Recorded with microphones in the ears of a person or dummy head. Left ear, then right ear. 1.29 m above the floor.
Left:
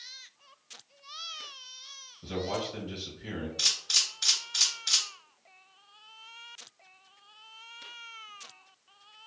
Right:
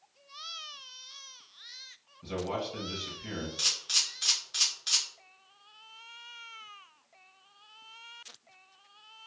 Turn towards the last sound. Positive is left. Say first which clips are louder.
# left 2 dB
turn(degrees=-35)  # may be behind; listen again after turning